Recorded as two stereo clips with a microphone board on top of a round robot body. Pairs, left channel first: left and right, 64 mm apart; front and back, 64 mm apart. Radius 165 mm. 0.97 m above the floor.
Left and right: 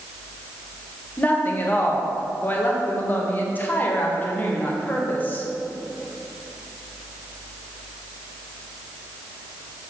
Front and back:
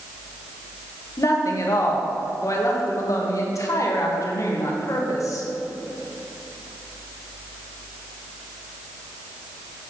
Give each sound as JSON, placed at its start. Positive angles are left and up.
{"t": 1.2, "sound": "a woman speaking", "azimuth_deg": 30, "distance_m": 1.5}